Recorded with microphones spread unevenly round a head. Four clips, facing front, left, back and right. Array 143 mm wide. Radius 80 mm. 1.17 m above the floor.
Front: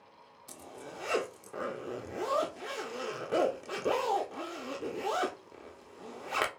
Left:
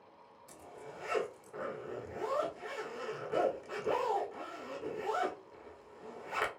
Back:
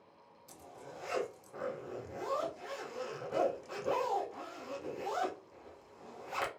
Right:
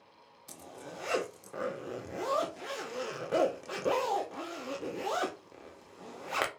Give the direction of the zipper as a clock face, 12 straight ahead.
1 o'clock.